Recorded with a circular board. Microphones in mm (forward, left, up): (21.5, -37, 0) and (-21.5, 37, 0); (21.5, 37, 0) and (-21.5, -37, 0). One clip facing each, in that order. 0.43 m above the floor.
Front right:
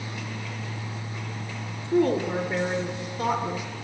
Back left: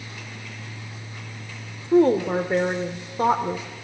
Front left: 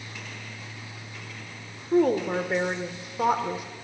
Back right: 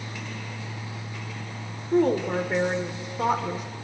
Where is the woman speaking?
140° left, 1.4 m.